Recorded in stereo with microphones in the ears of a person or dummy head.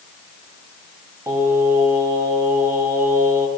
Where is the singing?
15° right (ahead or behind), 4 m.